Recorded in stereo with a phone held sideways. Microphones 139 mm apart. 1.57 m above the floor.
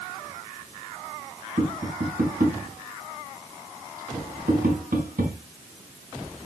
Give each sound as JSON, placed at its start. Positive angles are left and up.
{"t": 1.6, "sound": "tapping", "side_deg": -80, "distance_m": 5.5}